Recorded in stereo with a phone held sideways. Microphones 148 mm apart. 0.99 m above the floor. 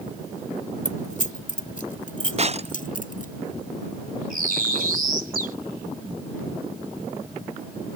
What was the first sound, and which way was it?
Keys jangling, 60° left (ahead or behind).